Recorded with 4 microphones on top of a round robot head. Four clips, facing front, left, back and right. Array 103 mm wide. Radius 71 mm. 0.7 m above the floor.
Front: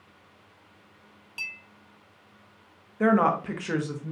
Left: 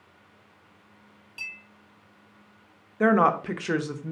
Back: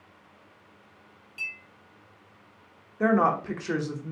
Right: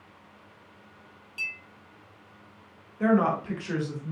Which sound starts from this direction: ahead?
A clink, at 1.4 s.